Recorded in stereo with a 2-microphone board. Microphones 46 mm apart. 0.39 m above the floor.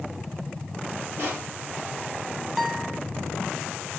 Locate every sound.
1.2 s crushing: 55° right (ahead or behind), 6.5 m
2.6 s a guitar: 5° right (ahead or behind), 1.6 m